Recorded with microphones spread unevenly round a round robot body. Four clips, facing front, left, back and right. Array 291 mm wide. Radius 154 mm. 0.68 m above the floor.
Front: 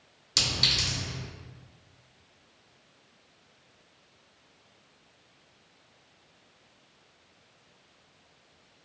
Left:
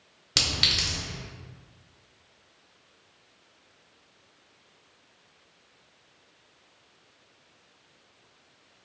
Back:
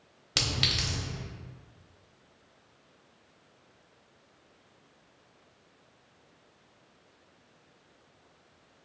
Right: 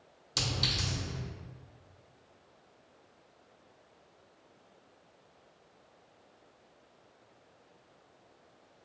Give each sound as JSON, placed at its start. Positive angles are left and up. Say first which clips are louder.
{"t": 0.4, "sound": "a clink", "louder": "left 3 dB, even", "azimuth_deg": 110, "distance_m": 1.2}